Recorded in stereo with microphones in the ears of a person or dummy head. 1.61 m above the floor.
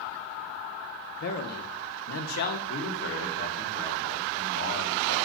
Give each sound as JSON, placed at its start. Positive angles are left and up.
{"t": 1.2, "sound": "a man speaking", "side_deg": 60, "distance_m": 1.0}
{"t": 2.7, "sound": "a man speaking", "side_deg": 60, "distance_m": 2.0}